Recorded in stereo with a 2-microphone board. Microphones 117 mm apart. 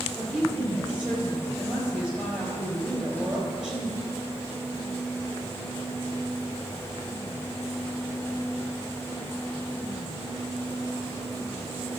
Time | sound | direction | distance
0.2 | a woman speaking | 5° right (ahead or behind) | 3.5 m